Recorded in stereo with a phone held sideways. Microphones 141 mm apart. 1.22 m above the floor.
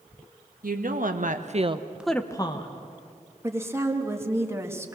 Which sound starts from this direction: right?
A woman speaking, at 0.6 s.